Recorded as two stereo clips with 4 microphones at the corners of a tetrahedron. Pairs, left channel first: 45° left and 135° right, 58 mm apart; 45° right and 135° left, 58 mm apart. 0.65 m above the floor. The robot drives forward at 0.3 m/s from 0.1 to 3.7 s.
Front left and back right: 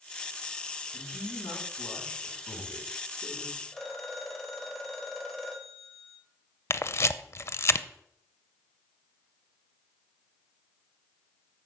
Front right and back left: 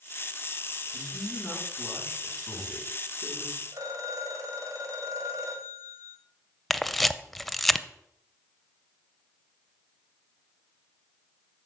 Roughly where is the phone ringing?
Behind left.